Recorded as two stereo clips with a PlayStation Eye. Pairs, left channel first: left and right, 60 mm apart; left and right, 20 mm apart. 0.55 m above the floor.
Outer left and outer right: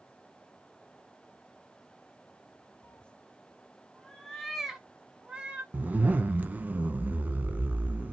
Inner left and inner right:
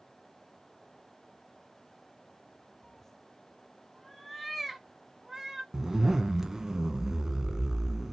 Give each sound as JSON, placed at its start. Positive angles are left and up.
{"t": 2.8, "sound": "a cat meowing", "side_deg": 50, "distance_m": 0.9}
{"t": 5.7, "sound": "a zipper", "side_deg": -30, "distance_m": 0.8}